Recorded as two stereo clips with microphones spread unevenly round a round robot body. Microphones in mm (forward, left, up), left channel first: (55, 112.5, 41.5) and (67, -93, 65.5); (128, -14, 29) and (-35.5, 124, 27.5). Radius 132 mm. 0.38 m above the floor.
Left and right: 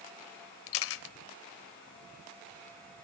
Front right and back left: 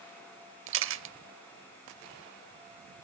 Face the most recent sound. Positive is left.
turn(degrees=110)